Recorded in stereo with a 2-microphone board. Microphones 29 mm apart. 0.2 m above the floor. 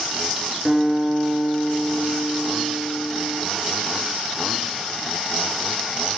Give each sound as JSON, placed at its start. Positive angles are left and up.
{"t": 0.7, "sound": "a guitar", "side_deg": -15, "distance_m": 3.0}